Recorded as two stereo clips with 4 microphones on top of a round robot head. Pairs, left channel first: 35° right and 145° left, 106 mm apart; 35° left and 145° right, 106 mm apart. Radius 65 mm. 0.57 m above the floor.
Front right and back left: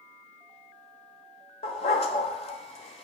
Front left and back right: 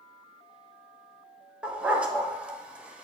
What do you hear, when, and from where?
1.6 s a dog barking: 65° right, 1.0 m